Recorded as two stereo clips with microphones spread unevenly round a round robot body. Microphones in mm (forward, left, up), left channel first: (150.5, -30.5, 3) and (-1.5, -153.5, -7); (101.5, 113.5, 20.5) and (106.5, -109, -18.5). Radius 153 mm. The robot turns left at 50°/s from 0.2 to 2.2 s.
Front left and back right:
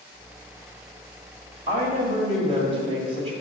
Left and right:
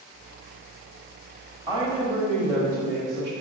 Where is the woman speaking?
135° right, 1.2 m; by 3.3 s 160° right, 1.2 m.